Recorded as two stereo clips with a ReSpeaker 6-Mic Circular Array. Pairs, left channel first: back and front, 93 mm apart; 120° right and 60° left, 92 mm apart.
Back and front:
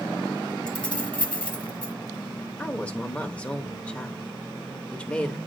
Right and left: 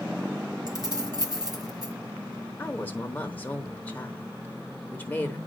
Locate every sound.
0.7 s keys jangling: 105° left, 1.4 m
2.6 s a woman speaking: 135° right, 0.9 m